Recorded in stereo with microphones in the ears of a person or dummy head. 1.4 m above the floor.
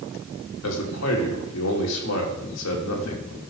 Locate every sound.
0.6 s a man speaking: 85° left, 3 m